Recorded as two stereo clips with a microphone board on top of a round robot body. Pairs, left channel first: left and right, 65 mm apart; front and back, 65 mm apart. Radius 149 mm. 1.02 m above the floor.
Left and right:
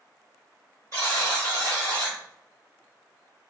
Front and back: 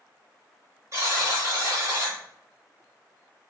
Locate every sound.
0.9 s a buzzer: 140° right, 1.1 m